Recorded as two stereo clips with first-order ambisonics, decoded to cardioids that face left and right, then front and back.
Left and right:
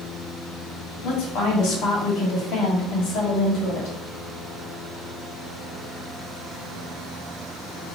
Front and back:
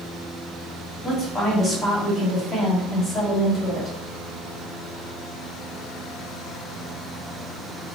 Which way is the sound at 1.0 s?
65° left.